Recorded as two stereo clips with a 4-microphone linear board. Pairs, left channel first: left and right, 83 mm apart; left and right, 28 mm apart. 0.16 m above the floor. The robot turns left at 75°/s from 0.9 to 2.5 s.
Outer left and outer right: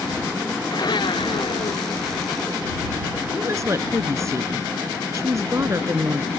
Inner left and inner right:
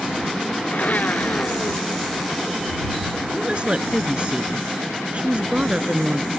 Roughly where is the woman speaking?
Right.